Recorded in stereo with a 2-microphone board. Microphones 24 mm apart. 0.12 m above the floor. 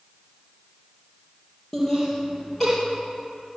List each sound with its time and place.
1.7 s laughter: 15° left (ahead or behind), 3.5 m